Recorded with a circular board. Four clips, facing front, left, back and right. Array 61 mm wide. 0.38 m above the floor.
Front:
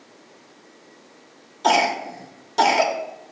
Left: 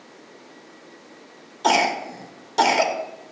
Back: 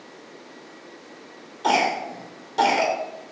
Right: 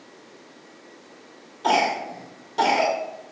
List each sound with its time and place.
1.6 s a cough: 65° left, 1.0 m